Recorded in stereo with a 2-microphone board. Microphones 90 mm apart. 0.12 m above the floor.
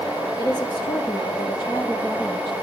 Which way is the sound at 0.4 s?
50° left (ahead or behind).